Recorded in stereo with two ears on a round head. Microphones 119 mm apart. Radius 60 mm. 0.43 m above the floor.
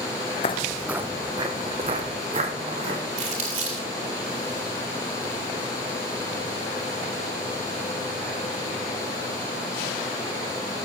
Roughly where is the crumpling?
Right.